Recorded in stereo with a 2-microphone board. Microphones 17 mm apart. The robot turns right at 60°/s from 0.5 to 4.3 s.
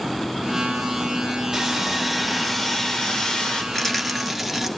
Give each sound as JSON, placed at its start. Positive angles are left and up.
{"t": 1.5, "sound": "sawing", "azimuth_deg": -40, "distance_m": 2.0}
{"t": 3.7, "sound": "a rattle", "azimuth_deg": 155, "distance_m": 1.5}